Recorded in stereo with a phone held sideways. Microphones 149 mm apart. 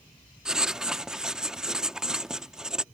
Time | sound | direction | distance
0.5 | writing | 5° right (ahead or behind) | ?